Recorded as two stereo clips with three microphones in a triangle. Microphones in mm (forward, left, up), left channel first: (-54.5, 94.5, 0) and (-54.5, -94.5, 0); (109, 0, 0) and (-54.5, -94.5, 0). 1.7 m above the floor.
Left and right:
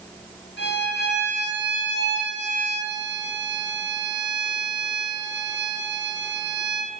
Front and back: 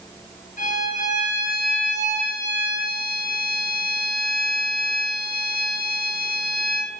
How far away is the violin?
About 0.7 m.